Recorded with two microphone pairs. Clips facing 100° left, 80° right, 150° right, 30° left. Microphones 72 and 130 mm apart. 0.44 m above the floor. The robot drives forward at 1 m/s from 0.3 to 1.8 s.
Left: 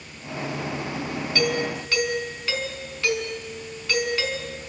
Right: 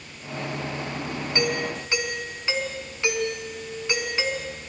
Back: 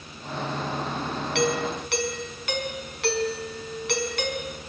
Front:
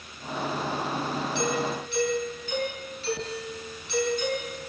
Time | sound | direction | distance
1.4 | a doorbell | 145° right | 4.5 m